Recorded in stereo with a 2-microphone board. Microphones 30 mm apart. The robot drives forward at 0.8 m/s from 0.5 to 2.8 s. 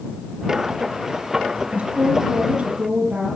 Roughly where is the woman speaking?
Right.